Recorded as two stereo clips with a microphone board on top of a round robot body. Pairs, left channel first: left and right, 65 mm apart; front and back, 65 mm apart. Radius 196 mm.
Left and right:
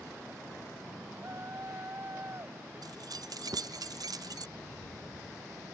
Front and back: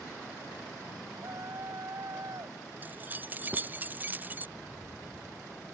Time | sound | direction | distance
1.1 | a shout | 140° right | ?
2.8 | keys jangling | 115° right | ?
4.6 | a rattle | 65° left | ?